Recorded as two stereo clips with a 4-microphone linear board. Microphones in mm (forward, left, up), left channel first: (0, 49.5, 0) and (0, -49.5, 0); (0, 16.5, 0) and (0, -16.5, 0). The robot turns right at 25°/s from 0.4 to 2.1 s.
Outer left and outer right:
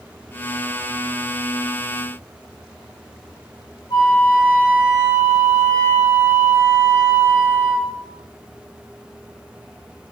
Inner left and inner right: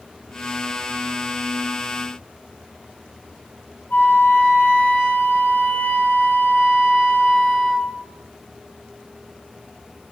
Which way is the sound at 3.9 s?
60° left (ahead or behind).